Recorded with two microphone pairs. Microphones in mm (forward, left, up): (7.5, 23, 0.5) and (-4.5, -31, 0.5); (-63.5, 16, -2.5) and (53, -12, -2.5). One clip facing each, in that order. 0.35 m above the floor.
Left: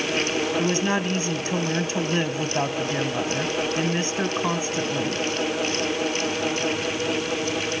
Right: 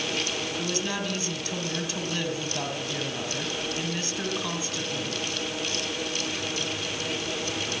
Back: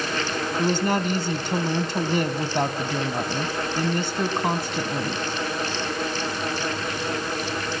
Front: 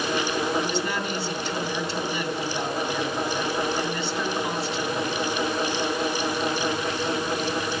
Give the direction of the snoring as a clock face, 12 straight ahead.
I don't hear snoring.